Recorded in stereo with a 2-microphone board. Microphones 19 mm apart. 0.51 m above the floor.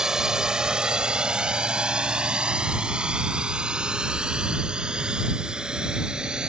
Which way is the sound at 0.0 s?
40° right (ahead or behind).